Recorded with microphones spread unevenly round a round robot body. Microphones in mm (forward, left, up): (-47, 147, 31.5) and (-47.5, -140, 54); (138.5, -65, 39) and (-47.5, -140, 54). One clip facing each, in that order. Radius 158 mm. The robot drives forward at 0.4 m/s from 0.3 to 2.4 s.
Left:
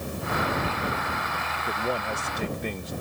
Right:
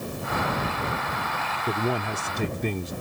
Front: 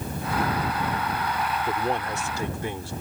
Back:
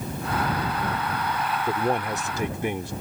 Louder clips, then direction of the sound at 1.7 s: Right 3 dB, back 5 dB; 80° right.